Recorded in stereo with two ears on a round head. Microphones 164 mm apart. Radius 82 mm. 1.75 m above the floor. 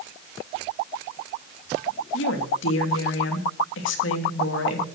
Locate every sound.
2.1 s a woman speaking: 70° left (ahead or behind), 3 m